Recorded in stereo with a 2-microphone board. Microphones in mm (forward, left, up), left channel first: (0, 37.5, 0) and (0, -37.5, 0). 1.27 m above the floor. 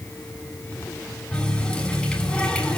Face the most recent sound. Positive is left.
turn(degrees=10)  # may be behind; listen again after turning